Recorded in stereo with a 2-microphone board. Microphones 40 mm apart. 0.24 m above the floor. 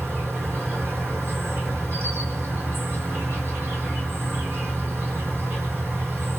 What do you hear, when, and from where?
0.0 s an insect: 75° right (ahead or behind), 1.3 m